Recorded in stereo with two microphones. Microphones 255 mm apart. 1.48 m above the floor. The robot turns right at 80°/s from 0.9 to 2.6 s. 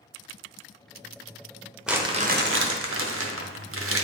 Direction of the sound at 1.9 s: Straight behind.